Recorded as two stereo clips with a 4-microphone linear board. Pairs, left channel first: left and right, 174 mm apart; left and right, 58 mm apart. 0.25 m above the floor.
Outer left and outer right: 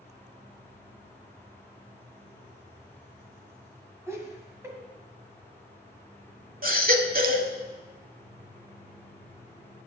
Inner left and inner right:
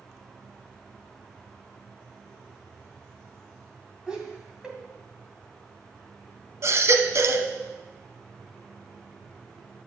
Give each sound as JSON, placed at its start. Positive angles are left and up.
{"t": 4.1, "sound": "laughter", "side_deg": -15, "distance_m": 1.9}
{"t": 6.6, "sound": "a baby crying", "side_deg": -55, "distance_m": 0.7}